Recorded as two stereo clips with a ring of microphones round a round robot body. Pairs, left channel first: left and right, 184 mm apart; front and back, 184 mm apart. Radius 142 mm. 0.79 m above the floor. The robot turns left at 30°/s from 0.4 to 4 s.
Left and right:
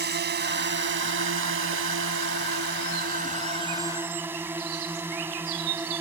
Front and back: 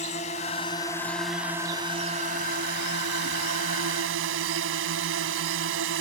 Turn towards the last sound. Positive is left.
turn(degrees=-170)